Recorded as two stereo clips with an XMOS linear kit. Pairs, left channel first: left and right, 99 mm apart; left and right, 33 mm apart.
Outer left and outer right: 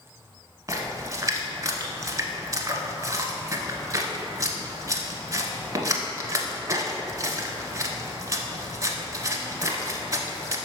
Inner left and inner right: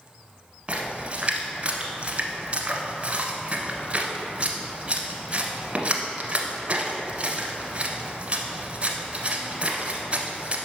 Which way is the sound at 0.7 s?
35° right (ahead or behind).